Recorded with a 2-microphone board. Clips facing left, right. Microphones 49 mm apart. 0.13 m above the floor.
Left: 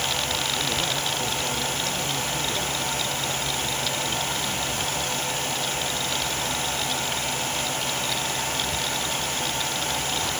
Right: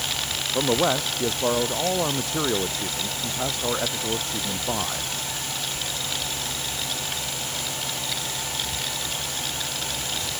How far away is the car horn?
No car horn in this recording.